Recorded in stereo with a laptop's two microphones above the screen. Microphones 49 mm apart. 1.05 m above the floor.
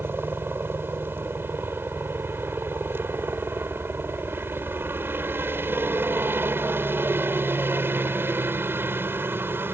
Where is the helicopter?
50° right (ahead or behind).